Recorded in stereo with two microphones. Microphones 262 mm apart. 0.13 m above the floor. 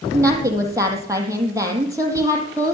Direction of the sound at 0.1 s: 10° right (ahead or behind).